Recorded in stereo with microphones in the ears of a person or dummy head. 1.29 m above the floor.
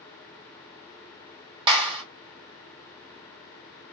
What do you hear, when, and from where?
1.7 s a clap: 30° right (ahead or behind), 1.5 m